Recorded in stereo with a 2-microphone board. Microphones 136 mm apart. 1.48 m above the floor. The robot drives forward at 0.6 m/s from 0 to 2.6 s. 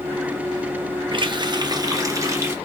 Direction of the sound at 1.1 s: 35° right (ahead or behind).